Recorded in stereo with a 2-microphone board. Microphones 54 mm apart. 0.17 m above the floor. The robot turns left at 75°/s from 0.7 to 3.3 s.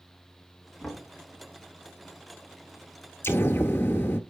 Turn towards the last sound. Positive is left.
turn(degrees=45)  # may be behind; listen again after turning